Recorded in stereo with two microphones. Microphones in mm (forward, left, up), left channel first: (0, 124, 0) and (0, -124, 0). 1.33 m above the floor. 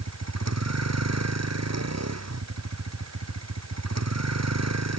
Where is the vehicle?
85° right.